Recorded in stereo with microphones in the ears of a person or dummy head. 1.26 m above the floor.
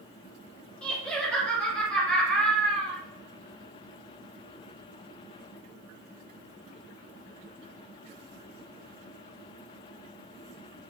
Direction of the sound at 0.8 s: 5° left (ahead or behind).